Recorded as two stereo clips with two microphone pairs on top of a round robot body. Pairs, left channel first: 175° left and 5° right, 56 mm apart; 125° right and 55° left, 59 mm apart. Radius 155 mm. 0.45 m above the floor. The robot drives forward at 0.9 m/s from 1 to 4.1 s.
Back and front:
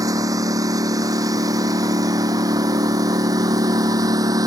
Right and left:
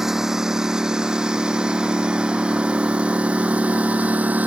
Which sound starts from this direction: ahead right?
A lawn mower, at 0.0 s.